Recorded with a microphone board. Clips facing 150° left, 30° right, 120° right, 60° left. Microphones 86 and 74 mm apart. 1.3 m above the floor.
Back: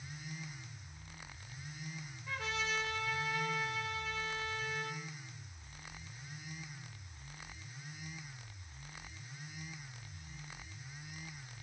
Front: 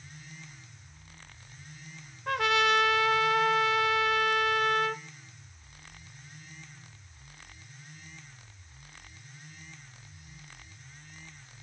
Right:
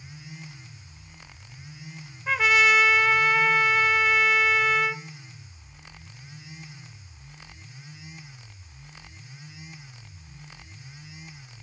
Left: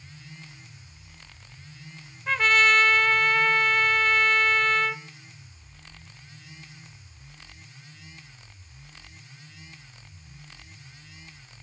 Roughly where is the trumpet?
Ahead right.